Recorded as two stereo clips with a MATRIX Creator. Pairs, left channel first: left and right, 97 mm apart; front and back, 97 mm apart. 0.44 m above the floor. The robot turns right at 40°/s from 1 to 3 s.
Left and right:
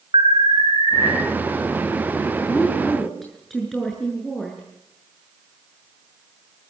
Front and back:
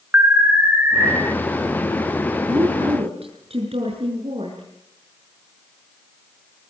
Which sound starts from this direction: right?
An alarm, at 0.1 s.